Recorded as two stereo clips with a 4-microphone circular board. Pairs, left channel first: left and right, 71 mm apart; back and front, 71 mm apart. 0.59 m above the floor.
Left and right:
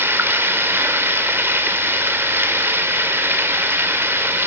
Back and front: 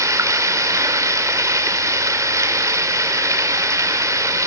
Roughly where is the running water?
Ahead right.